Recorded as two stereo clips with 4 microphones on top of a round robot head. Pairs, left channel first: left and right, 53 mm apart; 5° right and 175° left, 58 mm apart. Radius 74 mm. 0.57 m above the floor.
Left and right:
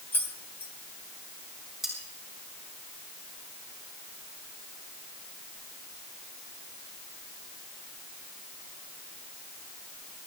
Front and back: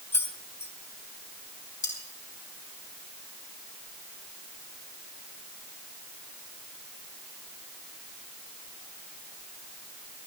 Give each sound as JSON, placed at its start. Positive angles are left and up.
{"t": 0.1, "sound": "keys jangling", "azimuth_deg": 45, "distance_m": 1.6}
{"t": 1.8, "sound": "cutlery clinking", "azimuth_deg": -5, "distance_m": 4.0}